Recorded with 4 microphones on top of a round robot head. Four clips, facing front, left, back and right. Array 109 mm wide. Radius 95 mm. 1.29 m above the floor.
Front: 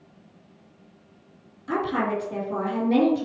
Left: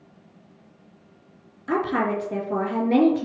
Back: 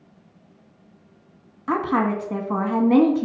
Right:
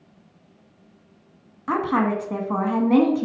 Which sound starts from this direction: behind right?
A woman speaking, at 1.7 s.